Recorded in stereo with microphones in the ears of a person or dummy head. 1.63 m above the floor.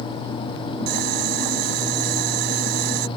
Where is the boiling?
55° right (ahead or behind).